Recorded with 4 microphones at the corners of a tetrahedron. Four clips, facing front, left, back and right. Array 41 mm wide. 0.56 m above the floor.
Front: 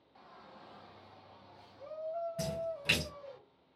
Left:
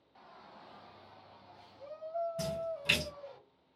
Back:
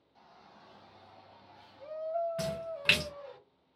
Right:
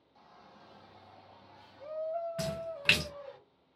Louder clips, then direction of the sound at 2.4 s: Even, back 1 dB; 135° right.